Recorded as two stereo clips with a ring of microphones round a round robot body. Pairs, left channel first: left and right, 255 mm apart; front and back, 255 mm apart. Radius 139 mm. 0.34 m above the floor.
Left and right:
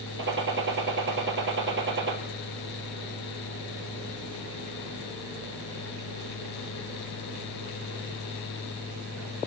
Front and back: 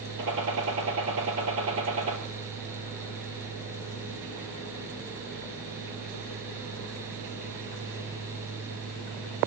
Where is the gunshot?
135° right, 4 m.